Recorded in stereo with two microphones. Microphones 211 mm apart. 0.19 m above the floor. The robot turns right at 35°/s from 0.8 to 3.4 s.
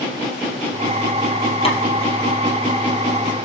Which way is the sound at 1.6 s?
30° left (ahead or behind).